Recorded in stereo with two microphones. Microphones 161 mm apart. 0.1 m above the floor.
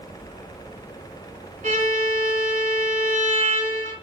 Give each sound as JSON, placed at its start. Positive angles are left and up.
{"t": 1.6, "sound": "a violin", "side_deg": -50, "distance_m": 5.5}